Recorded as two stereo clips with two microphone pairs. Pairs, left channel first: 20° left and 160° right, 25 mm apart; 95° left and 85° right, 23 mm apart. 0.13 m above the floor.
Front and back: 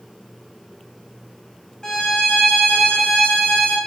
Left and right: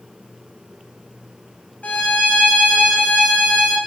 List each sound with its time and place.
1.8 s a violin: 85° left, 3 m